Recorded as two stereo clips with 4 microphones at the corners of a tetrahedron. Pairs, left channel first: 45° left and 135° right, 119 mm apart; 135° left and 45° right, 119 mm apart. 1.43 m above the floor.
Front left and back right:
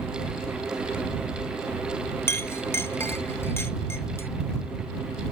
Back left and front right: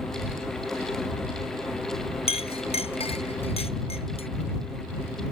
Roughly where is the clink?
Left.